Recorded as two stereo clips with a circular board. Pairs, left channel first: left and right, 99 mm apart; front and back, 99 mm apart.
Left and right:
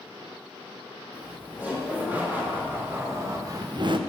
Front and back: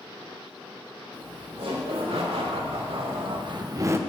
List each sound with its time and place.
1.1 s laughter: 165° right, 4 m; by 4.0 s 115° right, 0.8 m